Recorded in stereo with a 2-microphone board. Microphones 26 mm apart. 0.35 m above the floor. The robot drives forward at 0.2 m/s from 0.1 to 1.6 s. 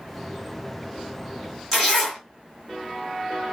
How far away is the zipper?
About 1.7 m.